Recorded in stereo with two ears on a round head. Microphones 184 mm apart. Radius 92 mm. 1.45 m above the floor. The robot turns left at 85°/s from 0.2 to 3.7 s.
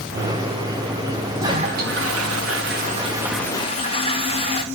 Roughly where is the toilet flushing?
Ahead.